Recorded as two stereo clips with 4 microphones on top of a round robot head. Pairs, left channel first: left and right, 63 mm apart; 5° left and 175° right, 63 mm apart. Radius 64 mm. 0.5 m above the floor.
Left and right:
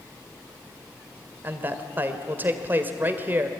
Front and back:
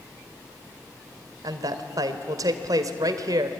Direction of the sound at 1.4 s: 150° right.